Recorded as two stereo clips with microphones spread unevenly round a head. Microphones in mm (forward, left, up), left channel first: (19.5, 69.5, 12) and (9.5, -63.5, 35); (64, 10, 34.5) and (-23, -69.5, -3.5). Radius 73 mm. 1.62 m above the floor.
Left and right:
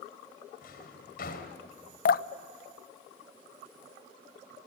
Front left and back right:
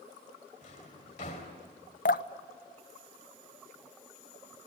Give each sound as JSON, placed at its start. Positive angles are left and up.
{"t": 0.6, "sound": "a drawer", "azimuth_deg": 65, "distance_m": 3.0}
{"t": 2.0, "sound": "dripping", "azimuth_deg": 60, "distance_m": 0.7}